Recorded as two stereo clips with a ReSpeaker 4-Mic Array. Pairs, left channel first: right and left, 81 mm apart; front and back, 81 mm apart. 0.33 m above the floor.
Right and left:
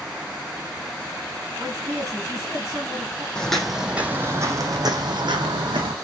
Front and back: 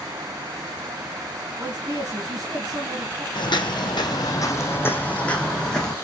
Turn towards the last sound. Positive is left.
turn(degrees=85)